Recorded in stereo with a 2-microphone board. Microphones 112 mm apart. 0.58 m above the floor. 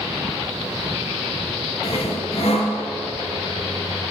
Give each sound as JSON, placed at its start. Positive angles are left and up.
{"t": 1.8, "sound": "sawing", "side_deg": 60, "distance_m": 2.0}